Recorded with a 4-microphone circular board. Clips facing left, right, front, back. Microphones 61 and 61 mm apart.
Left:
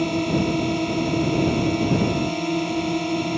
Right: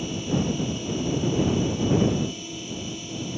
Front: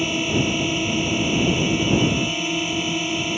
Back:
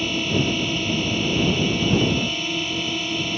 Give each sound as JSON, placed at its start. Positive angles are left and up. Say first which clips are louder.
{"t": 0.0, "sound": "a drone", "louder": "left 6 dB, front 1 dB", "azimuth_deg": 75}